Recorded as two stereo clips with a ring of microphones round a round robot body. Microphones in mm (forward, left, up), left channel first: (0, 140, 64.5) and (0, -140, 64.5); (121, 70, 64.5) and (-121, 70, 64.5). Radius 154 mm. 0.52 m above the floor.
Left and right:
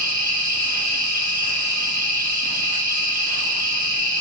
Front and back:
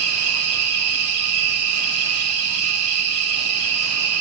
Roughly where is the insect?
Behind right.